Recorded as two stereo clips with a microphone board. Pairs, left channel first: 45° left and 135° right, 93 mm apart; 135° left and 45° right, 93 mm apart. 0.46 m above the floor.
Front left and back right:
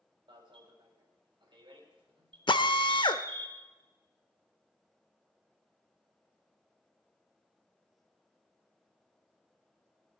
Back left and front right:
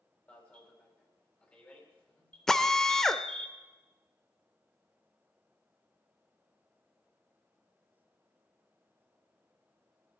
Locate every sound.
0.3 s an alarm: 155° right, 3.5 m
2.5 s a drill: 50° left, 0.7 m